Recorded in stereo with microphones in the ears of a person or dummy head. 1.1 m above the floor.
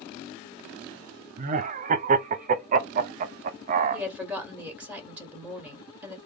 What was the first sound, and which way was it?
Laughter, 35° right (ahead or behind).